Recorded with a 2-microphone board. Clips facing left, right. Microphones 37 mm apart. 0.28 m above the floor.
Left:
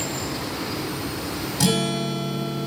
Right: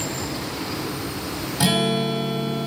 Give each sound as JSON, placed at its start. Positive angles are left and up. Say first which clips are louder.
{"t": 1.6, "sound": "a guitar", "louder": "right 2 dB", "side_deg": -25, "distance_m": 1.6}